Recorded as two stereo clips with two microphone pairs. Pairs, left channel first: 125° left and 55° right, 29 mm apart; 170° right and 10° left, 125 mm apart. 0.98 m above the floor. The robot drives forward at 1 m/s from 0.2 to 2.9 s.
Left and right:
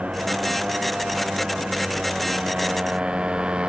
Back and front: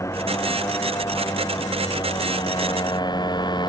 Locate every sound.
0.0 s a motorcycle: 105° right; by 3.7 s 115° right